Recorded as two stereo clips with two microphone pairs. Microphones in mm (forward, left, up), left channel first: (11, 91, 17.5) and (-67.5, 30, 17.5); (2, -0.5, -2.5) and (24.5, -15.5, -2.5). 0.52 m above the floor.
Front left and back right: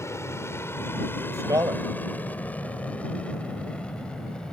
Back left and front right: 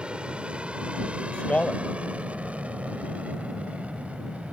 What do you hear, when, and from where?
0.0 s an aircraft: 10° right; by 4.5 s 45° right
1.3 s a man speaking: 170° left